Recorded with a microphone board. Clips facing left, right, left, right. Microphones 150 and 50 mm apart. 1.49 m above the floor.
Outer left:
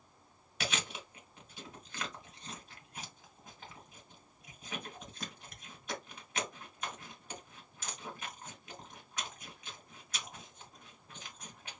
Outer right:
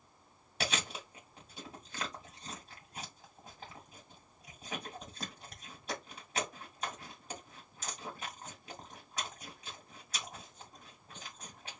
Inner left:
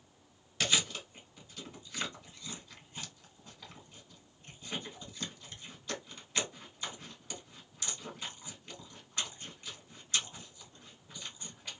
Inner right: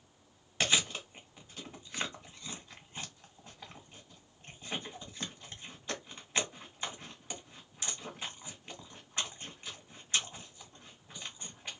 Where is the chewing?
35° right (ahead or behind), 1.5 m.